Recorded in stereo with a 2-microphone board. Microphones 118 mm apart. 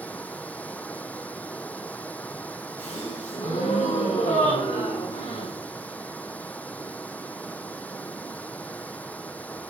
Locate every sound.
0.0 s running water: 15° left (ahead or behind), 0.7 m
2.8 s a gasp: 85° left, 5.5 m